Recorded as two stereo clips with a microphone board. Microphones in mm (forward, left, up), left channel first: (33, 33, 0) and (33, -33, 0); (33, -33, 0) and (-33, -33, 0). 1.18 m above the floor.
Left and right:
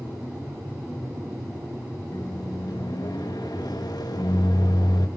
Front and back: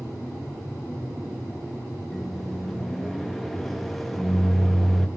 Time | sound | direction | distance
2.1 | a microwave | 90° left | 1.2 m